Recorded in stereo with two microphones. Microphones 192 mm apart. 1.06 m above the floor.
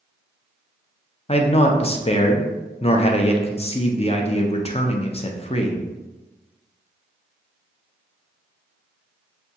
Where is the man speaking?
30° left (ahead or behind), 0.6 m.